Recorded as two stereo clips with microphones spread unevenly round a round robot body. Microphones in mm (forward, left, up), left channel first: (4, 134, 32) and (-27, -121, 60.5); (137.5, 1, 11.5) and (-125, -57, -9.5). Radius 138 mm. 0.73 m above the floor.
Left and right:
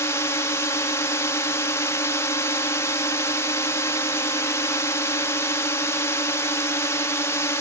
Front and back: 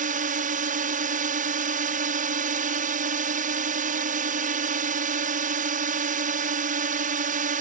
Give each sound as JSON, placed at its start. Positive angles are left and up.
{"t": 0.0, "sound": "a drone", "azimuth_deg": 150}